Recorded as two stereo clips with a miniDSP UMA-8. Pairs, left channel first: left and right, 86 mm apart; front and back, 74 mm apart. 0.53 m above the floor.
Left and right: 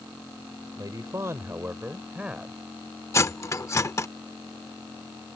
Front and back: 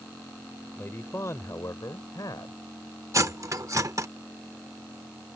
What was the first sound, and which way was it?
A man speaking, 55° right.